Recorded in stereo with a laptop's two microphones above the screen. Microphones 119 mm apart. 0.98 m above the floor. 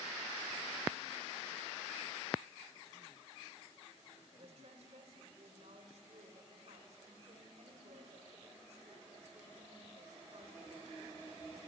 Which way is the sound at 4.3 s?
70° right (ahead or behind).